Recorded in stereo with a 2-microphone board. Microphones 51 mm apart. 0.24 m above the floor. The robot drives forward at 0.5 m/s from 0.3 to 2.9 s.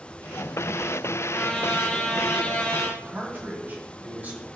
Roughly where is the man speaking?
Right.